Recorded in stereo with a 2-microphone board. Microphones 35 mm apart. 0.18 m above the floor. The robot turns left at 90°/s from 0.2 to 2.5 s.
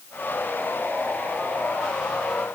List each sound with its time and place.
Only background noise.